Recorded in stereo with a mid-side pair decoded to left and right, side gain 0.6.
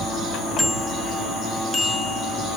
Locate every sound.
0.6 s a bicycle bell: straight ahead; by 2.6 s 10° left